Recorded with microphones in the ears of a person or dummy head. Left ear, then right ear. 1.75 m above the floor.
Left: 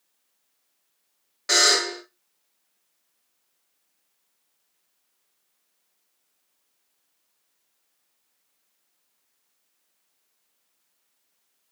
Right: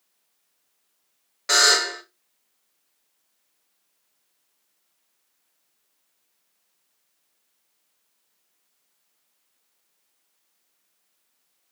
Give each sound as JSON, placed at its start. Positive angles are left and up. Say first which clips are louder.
{"t": 1.5, "sound": "a buzzer", "louder": "right 1 dB", "side_deg": -10, "distance_m": 1.5}